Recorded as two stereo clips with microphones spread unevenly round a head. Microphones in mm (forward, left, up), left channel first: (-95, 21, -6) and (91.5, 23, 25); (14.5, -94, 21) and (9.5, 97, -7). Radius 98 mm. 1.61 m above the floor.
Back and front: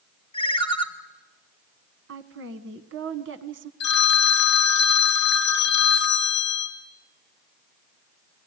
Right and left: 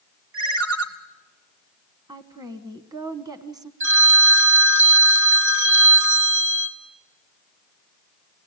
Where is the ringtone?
115° left, 2.5 m.